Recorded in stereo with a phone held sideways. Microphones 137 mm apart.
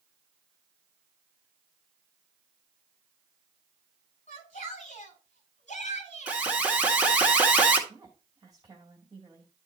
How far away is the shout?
About 6 m.